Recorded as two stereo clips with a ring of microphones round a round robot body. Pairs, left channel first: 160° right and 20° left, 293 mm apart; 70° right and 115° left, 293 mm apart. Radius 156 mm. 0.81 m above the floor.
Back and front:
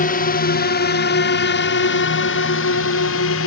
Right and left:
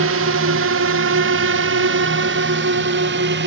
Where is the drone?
145° left; by 3.5 s 165° left.